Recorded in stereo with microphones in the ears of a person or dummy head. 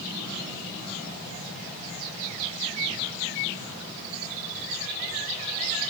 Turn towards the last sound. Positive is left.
No sound to turn to.